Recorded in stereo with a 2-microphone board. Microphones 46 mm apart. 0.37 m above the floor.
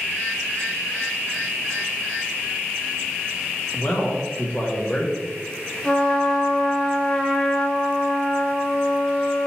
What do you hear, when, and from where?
3.7 s a man speaking: 45° left (ahead or behind), 2 m; by 5.1 s 25° left (ahead or behind), 1.7 m
5.8 s a trumpet: 20° left (ahead or behind), 1.4 m